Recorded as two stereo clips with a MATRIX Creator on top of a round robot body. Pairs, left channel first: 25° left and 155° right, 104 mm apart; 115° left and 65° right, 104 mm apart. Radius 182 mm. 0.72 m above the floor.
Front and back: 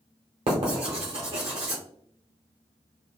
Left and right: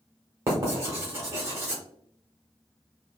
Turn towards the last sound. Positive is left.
turn(degrees=-130)